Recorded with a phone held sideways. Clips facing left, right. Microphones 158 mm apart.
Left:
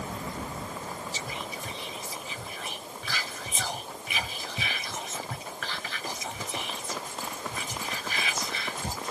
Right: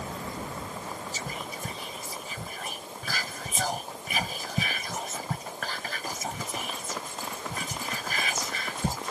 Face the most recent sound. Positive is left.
turn(degrees=-45)  # may be behind; listen again after turning